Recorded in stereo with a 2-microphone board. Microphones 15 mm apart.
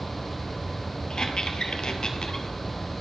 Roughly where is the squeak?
Left.